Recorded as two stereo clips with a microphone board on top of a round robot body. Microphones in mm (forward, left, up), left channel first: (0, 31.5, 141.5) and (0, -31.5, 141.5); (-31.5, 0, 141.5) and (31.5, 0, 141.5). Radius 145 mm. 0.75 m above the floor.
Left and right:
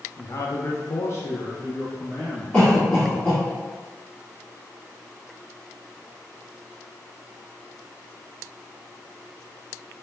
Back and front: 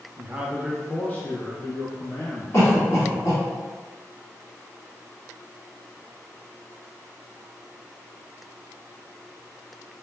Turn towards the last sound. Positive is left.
turn(degrees=150)